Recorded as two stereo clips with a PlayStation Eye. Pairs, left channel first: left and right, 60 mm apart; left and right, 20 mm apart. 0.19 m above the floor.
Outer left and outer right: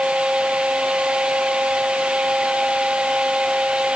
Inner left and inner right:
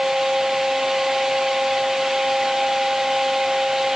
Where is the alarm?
No alarm in this recording.